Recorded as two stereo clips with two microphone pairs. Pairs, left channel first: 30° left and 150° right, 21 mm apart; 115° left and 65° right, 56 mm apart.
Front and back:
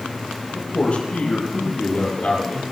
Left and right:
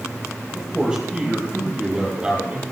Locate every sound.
0.5 s a man speaking: 25° left, 10 m; by 2.6 s 10° left, 9 m